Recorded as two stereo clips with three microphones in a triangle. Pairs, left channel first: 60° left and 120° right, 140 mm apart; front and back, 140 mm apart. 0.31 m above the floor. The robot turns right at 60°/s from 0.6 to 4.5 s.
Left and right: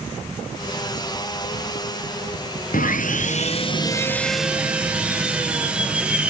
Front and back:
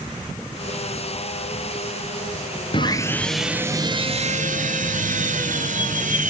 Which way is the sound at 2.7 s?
55° left.